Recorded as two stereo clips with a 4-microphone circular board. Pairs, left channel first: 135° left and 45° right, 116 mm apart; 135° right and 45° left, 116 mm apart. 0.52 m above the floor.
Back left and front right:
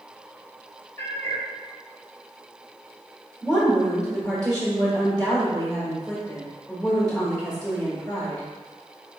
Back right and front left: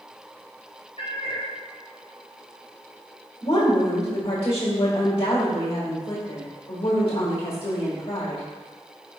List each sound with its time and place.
1.0 s a cat meowing: 160° right, 1.4 m
3.4 s a woman speaking: 145° right, 1.3 m